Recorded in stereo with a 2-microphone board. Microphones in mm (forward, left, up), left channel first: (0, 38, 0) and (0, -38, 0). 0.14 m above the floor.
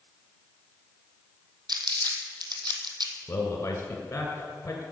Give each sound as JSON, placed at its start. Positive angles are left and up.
{"t": 1.7, "sound": "crumpling", "side_deg": -75, "distance_m": 1.6}
{"t": 3.3, "sound": "a man speaking", "side_deg": 35, "distance_m": 1.9}